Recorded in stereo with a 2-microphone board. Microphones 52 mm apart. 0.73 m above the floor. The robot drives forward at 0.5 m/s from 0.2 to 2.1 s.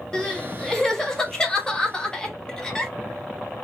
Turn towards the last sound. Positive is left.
turn(degrees=15)  # may be behind; listen again after turning